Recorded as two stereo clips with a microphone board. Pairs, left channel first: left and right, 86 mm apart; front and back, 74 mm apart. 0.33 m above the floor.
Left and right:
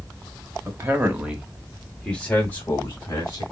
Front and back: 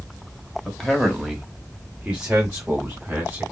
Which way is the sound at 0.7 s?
75° right.